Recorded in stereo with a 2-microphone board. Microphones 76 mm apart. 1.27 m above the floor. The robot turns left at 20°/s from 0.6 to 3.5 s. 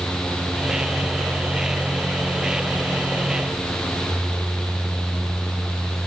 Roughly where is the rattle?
No rattle in this recording.